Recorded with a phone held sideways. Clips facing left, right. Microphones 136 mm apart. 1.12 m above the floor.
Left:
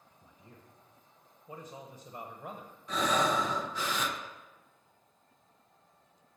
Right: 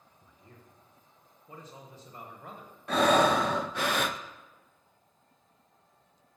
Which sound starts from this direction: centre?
A man speaking, at 0.1 s.